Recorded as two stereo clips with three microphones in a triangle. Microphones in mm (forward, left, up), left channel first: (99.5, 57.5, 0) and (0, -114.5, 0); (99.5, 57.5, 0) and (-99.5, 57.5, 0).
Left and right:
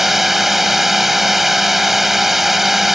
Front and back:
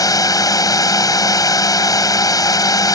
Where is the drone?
35° right.